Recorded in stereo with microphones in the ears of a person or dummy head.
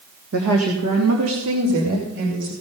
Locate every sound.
0.3 s a woman speaking: 65° right (ahead or behind), 1.8 m; by 2.5 s 70° right (ahead or behind), 4 m